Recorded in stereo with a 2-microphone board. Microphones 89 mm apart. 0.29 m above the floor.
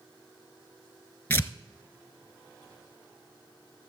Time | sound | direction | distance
1.3 | tearing paper | 25° left (ahead or behind) | 0.7 m